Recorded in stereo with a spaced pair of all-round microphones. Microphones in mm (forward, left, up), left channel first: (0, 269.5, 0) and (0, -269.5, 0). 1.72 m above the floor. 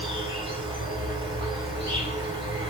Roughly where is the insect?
Centre.